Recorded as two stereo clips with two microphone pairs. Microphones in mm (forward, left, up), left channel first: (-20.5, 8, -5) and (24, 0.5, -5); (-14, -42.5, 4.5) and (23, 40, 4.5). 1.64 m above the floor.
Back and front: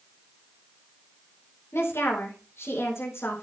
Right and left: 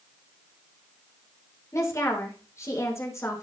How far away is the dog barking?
No dog barking in this recording.